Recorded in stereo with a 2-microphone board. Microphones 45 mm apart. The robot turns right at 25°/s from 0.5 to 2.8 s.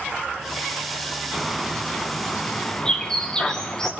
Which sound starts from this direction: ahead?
A bird, at 1.3 s.